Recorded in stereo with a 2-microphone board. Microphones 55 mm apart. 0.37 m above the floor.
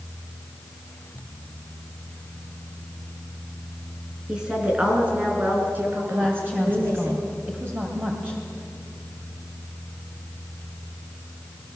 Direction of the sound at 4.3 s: 15° right (ahead or behind).